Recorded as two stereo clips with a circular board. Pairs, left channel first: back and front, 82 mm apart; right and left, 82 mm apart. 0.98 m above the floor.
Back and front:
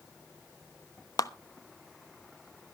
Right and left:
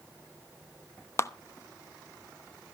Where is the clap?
140° right, 0.9 m.